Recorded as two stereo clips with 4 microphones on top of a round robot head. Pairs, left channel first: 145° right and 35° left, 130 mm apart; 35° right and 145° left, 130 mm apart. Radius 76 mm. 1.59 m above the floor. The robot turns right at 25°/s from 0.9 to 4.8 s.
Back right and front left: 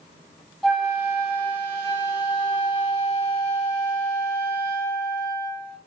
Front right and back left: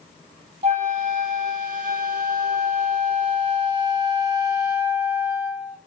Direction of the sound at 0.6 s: 125° left.